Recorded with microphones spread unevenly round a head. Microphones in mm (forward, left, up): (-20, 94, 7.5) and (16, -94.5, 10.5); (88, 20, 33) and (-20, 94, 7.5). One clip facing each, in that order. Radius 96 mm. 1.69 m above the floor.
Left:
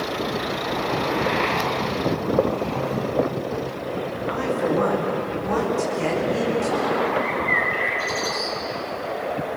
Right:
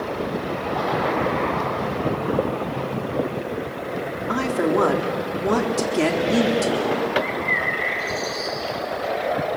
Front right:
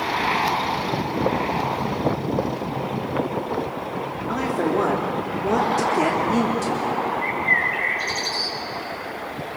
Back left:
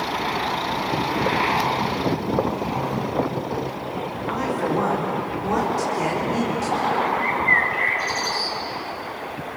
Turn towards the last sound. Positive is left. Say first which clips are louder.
# left 1 dB, back left 2 dB
turn(degrees=25)